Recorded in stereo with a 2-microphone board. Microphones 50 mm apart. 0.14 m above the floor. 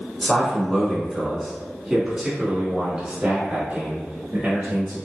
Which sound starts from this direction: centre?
A man speaking, at 0.2 s.